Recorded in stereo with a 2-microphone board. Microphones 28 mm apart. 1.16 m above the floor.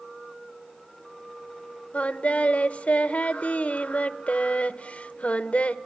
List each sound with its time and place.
1.9 s singing: 50° left (ahead or behind), 1.1 m